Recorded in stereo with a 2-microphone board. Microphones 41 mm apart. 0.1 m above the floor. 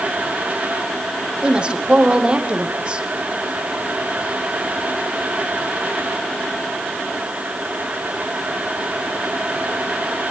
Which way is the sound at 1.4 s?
20° right (ahead or behind).